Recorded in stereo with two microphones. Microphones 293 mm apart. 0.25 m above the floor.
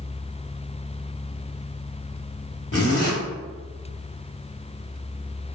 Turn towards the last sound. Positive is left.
turn(degrees=50)  # may be behind; listen again after turning